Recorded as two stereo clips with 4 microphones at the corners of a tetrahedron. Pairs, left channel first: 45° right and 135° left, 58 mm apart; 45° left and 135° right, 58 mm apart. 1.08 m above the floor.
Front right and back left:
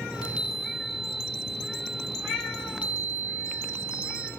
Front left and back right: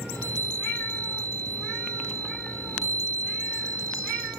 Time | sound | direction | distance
0.1 | a chime | 155° right | 1.3 m